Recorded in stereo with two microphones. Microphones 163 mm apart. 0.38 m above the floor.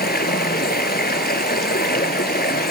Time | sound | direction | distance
0.0 | running water | 75° left (ahead or behind) | 1.2 m